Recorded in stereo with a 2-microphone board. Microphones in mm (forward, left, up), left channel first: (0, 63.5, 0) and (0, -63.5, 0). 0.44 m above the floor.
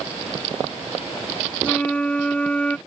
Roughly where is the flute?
Centre.